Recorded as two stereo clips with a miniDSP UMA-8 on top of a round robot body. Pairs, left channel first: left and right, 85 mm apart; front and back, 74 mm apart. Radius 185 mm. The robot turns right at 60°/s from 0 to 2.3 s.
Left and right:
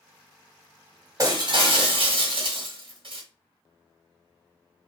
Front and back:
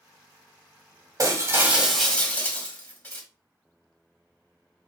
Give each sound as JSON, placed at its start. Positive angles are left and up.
{"t": 1.2, "sound": "breaking glass", "azimuth_deg": -140, "distance_m": 2.0}